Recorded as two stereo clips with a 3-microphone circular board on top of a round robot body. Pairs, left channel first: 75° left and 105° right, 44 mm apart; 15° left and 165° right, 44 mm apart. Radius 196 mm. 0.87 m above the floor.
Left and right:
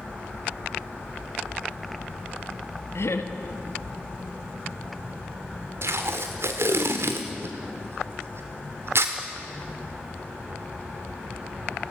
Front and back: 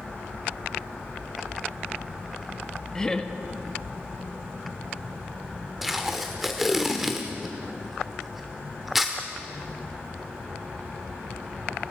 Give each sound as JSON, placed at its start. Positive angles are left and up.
{"t": 3.0, "sound": "laughter", "azimuth_deg": 90, "distance_m": 2.0}
{"t": 5.8, "sound": "tape being pulled", "azimuth_deg": -80, "distance_m": 0.8}